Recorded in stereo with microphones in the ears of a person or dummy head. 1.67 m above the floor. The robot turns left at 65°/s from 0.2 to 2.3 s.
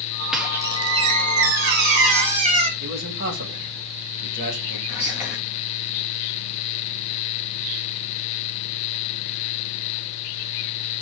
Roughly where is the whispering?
Centre.